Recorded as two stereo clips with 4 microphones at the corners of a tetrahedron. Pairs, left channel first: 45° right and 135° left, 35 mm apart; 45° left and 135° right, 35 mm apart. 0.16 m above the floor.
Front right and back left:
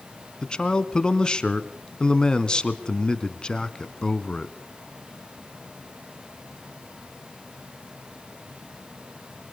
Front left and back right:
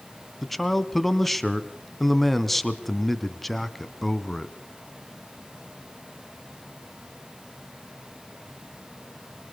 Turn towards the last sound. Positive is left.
turn(degrees=-30)